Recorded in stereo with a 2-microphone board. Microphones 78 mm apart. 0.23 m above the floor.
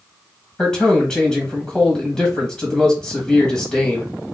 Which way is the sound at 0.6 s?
10° left (ahead or behind).